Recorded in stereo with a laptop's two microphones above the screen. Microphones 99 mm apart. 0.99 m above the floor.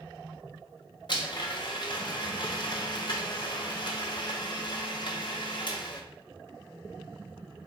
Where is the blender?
50° left (ahead or behind), 0.6 m.